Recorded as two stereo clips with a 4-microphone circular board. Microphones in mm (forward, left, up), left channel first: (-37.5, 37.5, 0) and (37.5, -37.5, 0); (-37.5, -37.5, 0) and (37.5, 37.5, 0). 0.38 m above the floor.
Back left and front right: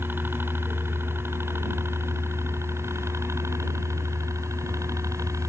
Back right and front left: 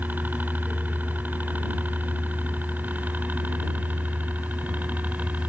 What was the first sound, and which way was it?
A helicopter, 5° right.